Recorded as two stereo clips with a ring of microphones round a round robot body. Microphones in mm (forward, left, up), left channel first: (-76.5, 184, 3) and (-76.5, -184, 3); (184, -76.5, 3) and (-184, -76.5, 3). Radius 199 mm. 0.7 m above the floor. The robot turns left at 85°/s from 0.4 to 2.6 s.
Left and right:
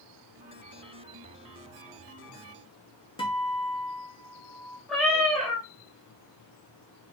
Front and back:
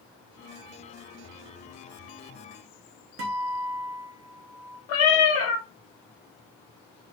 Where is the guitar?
160° left, 1.0 m.